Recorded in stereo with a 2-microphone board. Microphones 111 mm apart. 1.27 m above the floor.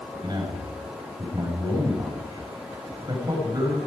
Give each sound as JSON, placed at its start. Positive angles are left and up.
{"t": 0.1, "sound": "a man speaking", "side_deg": -40, "distance_m": 5.5}